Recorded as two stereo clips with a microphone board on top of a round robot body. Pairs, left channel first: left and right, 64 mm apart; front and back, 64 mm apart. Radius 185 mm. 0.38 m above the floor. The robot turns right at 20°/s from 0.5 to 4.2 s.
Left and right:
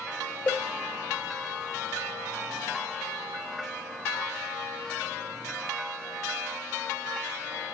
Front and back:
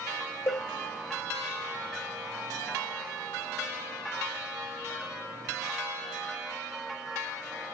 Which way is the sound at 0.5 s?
35° left.